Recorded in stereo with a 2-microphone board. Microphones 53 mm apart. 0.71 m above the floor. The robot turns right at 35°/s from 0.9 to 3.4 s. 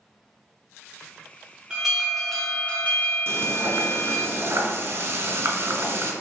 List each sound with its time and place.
1.7 s an alarm: 15° right, 1.6 m; by 4.3 s 45° left, 1.6 m
3.3 s frying: 55° right (ahead or behind), 1.3 m; by 6.1 s 50° right (ahead or behind), 1.3 m